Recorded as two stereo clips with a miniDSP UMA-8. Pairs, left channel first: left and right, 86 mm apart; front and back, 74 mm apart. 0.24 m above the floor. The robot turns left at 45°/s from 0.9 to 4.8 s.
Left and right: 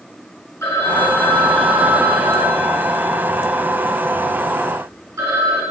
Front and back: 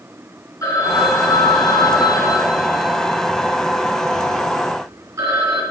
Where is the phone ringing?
35° left, 1.9 m; by 5.6 s 140° right, 1.9 m.